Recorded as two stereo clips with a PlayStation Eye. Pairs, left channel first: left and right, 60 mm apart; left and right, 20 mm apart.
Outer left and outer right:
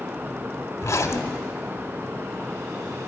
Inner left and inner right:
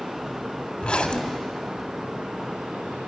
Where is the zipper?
60° left (ahead or behind), 0.8 m.